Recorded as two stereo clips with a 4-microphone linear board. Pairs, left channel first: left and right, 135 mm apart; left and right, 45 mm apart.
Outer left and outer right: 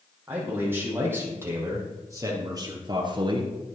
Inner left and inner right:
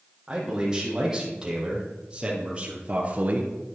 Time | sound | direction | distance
0.3 | a man speaking | 15° right (ahead or behind) | 5 m